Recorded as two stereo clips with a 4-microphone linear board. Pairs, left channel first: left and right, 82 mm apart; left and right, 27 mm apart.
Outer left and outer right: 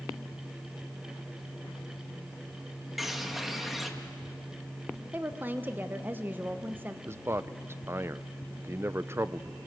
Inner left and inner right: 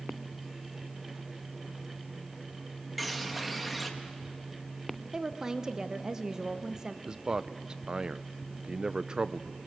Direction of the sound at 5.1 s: 25° right (ahead or behind).